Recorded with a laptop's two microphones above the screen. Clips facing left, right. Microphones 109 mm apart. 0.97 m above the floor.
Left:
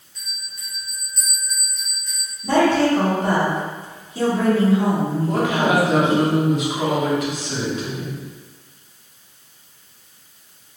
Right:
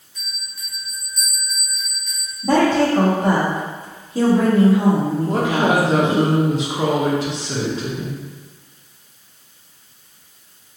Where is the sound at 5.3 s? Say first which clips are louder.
Right 1 dB; 30° right (ahead or behind), 0.6 m.